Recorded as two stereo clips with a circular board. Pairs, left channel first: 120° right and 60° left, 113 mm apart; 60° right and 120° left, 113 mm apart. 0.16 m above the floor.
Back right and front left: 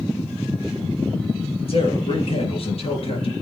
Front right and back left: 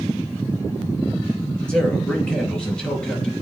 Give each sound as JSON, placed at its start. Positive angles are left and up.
{"t": 1.7, "sound": "a man speaking", "azimuth_deg": -140, "distance_m": 3.5}